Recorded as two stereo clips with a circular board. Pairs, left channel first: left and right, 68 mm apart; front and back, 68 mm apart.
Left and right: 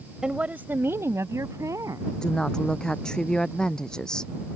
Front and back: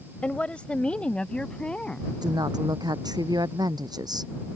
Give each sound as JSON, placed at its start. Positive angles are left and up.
{"t": 0.2, "sound": "a woman speaking", "azimuth_deg": -30}
{"t": 2.2, "sound": "a woman speaking", "azimuth_deg": 170}